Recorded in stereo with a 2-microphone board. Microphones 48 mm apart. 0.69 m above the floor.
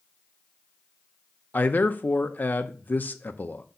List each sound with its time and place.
1.5 s a man speaking: 35° left (ahead or behind), 0.6 m